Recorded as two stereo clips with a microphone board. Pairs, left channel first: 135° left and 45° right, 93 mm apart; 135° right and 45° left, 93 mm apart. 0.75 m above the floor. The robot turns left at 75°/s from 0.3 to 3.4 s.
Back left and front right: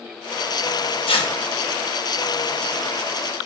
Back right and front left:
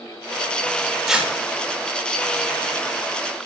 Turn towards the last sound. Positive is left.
turn(degrees=-45)